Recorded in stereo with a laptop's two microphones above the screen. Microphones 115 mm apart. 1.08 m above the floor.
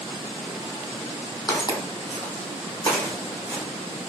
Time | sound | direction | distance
1.5 | footsteps | 35° left (ahead or behind) | 1.8 m